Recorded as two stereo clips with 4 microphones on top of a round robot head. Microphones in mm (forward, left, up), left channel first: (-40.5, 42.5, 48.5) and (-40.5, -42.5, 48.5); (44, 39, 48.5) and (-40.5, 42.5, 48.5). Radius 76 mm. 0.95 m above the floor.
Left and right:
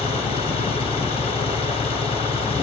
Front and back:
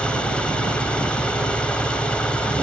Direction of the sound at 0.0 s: 75° left.